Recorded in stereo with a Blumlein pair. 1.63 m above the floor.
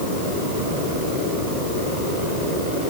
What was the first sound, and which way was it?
Only background noise.